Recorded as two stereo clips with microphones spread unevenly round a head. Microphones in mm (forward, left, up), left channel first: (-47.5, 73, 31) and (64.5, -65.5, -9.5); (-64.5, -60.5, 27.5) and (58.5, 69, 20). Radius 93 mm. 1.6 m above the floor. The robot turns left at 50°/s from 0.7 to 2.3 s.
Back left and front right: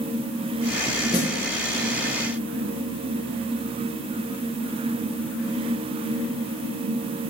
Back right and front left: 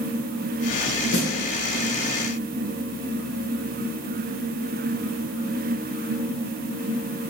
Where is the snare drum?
160° right, 0.9 m; by 1.4 s 170° right, 0.9 m.